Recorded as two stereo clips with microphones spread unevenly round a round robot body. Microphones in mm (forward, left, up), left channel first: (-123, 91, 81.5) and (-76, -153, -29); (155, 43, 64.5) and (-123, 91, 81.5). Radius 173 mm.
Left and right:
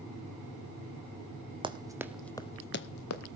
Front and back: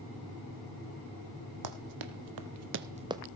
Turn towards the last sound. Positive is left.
turn(degrees=90)